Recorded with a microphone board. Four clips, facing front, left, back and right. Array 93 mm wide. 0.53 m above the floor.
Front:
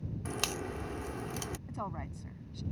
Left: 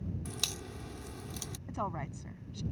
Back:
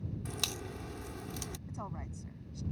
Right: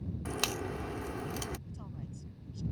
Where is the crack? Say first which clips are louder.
Right 8 dB, front 5 dB; 60° right.